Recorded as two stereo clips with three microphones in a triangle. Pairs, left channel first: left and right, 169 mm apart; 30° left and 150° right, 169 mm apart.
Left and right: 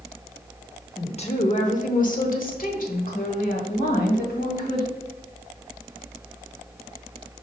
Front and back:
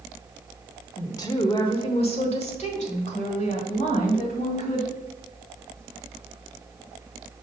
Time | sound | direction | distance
1.0 | a woman speaking | 85° left | 0.8 m